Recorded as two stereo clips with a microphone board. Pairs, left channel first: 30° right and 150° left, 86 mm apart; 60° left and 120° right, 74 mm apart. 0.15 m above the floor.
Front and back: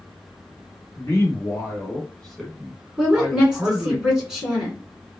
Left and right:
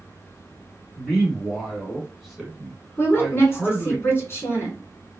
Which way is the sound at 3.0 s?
75° left.